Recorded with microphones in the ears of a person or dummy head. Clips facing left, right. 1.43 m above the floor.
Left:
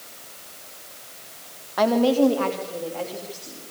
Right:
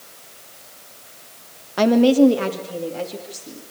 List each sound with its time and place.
1.8 s a woman speaking: 35° right (ahead or behind), 1.4 m; by 3.6 s 25° right (ahead or behind), 4 m